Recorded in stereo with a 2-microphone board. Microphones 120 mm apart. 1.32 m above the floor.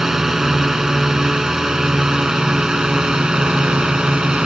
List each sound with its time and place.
0.0 s a drone: 5° right (ahead or behind); by 4.5 s 10° right (ahead or behind)